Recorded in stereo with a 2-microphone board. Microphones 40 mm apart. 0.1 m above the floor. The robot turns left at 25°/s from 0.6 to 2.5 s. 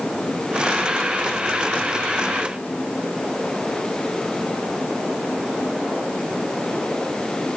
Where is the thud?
I don't hear a thud.